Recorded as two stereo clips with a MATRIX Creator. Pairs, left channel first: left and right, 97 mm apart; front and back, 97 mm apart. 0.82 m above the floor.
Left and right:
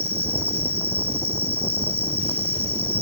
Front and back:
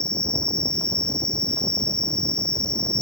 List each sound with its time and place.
0.0 s an insect: 80° right